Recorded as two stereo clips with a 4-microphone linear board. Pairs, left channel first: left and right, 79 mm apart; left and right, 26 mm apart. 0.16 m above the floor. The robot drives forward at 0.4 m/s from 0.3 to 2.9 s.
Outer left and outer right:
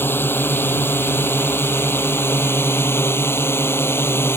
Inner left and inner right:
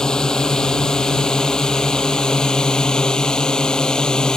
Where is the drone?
30° left (ahead or behind).